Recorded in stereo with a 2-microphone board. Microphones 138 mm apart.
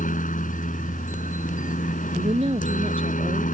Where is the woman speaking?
40° right (ahead or behind).